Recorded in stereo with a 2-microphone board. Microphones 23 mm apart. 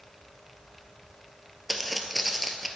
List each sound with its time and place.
1.7 s footsteps: centre (ahead or behind), 0.8 m